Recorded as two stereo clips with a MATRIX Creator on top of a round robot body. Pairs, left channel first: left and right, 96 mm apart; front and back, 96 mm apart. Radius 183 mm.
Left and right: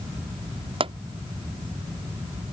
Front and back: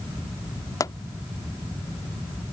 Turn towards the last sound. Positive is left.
turn(degrees=-60)